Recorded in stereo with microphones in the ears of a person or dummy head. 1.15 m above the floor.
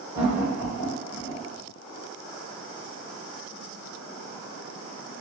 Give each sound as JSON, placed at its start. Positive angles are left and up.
{"t": 0.1, "sound": "laughter", "side_deg": -15, "distance_m": 1.6}